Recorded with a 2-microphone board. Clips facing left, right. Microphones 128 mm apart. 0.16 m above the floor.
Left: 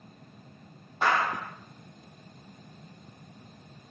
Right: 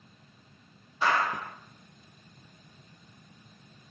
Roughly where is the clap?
Left.